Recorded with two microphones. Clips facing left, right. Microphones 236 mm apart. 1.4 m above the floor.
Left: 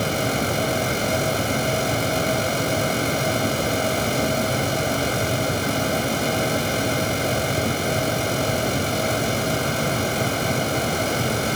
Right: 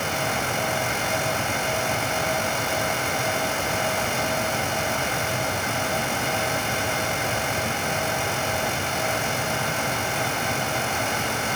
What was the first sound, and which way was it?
Only background noise.